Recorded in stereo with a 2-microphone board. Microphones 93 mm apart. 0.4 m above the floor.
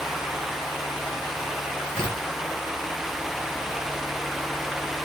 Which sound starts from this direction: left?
Tearing paper, at 1.9 s.